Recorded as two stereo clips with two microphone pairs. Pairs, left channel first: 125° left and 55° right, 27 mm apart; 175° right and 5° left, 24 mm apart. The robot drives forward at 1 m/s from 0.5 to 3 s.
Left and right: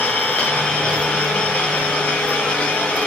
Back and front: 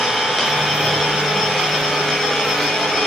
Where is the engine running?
90° left, 7 m; by 3.1 s 110° left, 7.5 m.